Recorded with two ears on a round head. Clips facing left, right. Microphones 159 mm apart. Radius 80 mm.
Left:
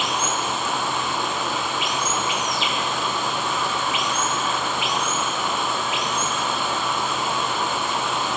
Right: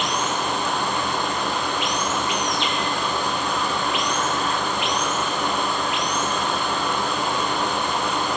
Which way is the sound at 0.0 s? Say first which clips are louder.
Right 1 dB; centre (ahead or behind).